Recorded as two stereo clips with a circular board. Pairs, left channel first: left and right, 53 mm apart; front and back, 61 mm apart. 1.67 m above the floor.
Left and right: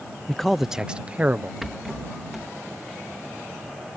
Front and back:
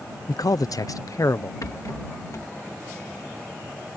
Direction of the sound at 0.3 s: 10° left.